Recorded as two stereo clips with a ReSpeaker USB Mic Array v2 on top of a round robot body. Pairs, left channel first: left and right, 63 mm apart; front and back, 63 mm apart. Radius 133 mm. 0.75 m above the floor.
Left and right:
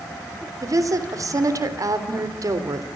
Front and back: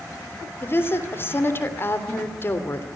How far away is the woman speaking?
About 3.5 m.